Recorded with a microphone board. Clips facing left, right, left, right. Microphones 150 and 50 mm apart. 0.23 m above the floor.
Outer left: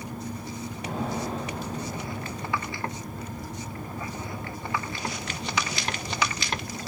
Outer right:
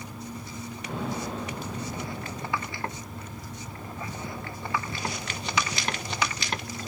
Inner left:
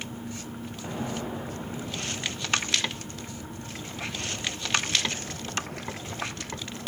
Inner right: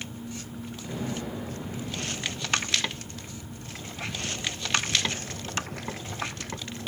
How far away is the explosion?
About 7.5 m.